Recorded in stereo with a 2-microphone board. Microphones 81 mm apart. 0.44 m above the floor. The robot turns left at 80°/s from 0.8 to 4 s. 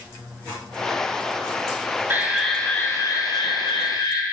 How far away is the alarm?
About 3 m.